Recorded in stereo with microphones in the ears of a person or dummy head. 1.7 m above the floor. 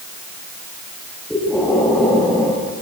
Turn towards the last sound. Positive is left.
turn(degrees=5)  # may be behind; listen again after turning